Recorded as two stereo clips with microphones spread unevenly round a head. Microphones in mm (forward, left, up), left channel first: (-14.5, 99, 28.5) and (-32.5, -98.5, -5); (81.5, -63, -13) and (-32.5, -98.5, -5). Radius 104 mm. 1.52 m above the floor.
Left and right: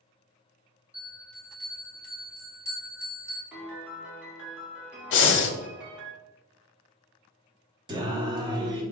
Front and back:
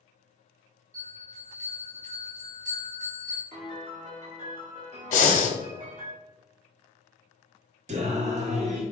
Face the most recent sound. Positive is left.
turn(degrees=-165)